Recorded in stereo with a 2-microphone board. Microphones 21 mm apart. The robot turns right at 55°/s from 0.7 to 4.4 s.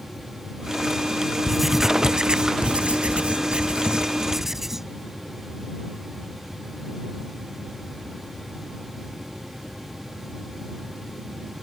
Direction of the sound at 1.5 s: 175° right.